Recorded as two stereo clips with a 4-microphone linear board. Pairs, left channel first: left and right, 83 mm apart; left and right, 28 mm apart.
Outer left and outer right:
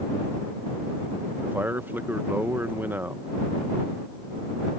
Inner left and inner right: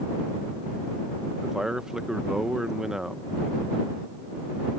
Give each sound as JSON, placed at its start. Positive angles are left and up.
{"t": 1.4, "sound": "a man speaking", "side_deg": -25}